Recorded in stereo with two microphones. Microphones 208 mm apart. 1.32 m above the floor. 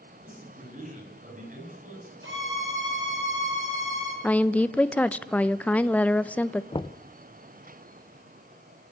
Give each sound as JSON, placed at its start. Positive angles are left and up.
{"t": 0.2, "sound": "a man speaking", "side_deg": -40, "distance_m": 8.5}
{"t": 2.2, "sound": "a violin", "side_deg": -85, "distance_m": 6.5}
{"t": 4.2, "sound": "a woman speaking", "side_deg": 5, "distance_m": 0.8}
{"t": 6.7, "sound": "knocking", "side_deg": 25, "distance_m": 0.7}